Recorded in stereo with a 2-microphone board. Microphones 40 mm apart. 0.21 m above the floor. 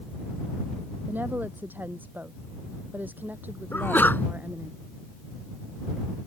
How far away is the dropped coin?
I don't hear a dropped coin.